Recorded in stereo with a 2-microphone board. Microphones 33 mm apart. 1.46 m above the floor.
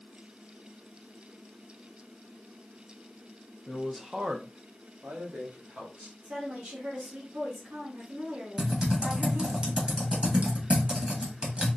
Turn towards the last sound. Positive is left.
turn(degrees=-35)  # may be behind; listen again after turning